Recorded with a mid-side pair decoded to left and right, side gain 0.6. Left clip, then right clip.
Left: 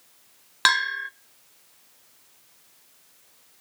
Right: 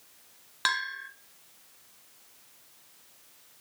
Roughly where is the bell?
Ahead left.